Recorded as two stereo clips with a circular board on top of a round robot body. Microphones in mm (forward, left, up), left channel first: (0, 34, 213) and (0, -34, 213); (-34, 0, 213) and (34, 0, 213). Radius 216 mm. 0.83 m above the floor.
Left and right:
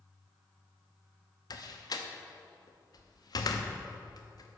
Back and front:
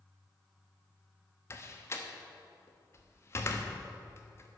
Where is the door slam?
125° left, 0.9 m.